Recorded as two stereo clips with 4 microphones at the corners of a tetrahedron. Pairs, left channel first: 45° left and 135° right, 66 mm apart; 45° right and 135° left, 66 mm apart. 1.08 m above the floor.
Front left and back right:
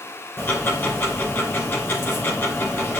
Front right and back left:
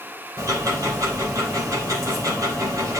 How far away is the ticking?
About 2.5 m.